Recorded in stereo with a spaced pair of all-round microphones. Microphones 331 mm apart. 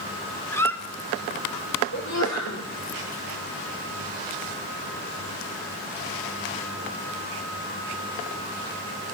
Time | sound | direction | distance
0.5 | a squeak | 5° left (ahead or behind) | 0.7 m
1.9 | a sneeze | 55° left (ahead or behind) | 3.5 m